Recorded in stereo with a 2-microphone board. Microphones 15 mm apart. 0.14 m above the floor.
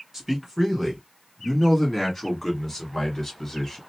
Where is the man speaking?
35° right (ahead or behind), 1.8 m; by 3.8 s 25° left (ahead or behind), 1.9 m.